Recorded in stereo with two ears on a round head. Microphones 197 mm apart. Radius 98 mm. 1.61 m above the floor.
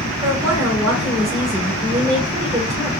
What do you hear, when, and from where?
0.2 s a woman speaking: 15° right (ahead or behind), 2.5 m